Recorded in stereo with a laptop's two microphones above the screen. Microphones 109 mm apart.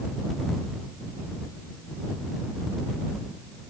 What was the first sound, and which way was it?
Only background noise.